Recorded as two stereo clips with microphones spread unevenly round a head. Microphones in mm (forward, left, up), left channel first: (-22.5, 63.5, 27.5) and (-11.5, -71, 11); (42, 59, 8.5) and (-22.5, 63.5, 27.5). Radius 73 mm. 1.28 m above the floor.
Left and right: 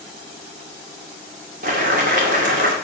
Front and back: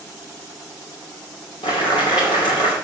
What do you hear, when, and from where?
1.6 s boiling: 45° right, 2 m